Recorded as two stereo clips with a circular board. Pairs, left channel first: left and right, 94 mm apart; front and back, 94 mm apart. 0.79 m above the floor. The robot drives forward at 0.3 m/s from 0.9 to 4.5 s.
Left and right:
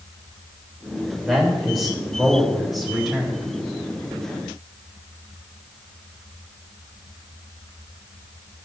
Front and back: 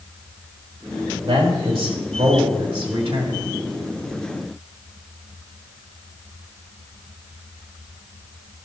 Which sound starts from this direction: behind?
A man speaking, at 1.2 s.